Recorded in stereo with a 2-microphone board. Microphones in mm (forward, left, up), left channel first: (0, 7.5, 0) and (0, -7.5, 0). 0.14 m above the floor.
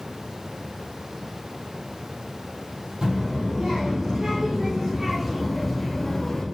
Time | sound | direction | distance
3.0 | a child speaking | 70° right (ahead or behind) | 2 m